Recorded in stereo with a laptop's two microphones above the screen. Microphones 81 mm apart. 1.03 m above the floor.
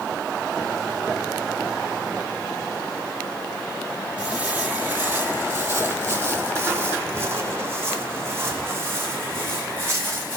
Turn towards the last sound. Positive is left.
turn(degrees=-30)  # may be behind; listen again after turning